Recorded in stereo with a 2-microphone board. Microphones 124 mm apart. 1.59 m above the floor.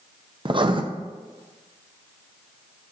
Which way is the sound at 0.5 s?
40° right (ahead or behind).